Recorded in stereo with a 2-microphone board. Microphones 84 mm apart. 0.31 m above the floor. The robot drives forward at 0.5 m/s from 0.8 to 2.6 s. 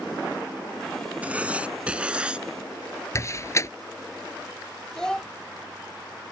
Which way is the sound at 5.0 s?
10° left (ahead or behind).